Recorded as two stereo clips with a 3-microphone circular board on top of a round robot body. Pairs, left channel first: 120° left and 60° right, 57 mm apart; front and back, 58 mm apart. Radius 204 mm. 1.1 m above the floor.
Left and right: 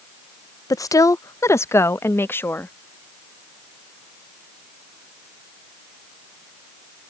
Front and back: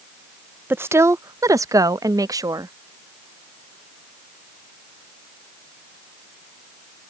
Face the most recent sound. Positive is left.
turn(degrees=175)